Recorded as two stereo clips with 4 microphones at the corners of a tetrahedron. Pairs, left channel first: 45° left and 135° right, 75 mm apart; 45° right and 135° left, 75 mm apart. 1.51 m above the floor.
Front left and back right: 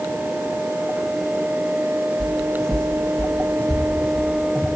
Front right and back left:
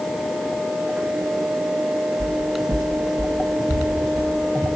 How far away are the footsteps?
About 3.5 m.